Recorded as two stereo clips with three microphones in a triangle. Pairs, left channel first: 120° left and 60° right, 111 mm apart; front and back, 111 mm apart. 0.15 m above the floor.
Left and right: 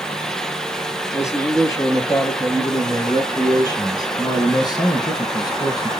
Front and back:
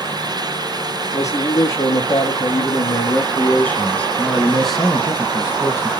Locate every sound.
1.1 s a man speaking: 60° left, 3 m; by 5.9 s 130° left, 1.3 m